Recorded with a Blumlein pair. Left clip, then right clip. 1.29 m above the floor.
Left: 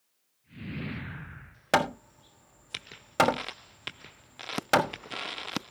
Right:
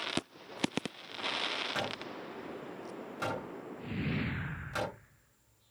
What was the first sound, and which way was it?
Hammering, 45° left.